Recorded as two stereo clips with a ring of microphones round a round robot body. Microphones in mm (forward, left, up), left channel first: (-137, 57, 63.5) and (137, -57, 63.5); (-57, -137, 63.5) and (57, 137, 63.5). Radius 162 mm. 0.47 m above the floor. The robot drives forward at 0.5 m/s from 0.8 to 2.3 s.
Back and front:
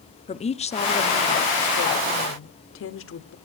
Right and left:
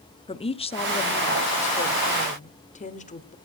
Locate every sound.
0.3 s a woman speaking: 160° right, 1.1 m; by 3.4 s 170° right, 1.6 m